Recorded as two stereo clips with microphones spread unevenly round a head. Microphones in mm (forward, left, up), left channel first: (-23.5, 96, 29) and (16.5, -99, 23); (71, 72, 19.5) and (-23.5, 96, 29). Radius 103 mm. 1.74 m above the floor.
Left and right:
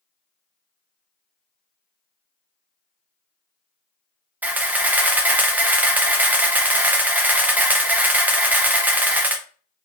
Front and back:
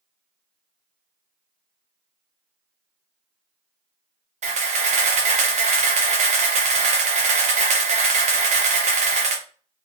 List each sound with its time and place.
4.4 s a camera shutter: 160° right, 0.6 m